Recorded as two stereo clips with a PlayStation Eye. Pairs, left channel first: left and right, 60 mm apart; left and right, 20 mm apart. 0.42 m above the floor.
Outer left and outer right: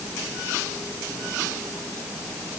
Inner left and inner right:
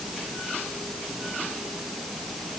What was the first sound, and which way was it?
Only background noise.